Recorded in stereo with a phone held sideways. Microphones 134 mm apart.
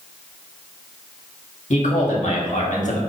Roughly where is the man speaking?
Left.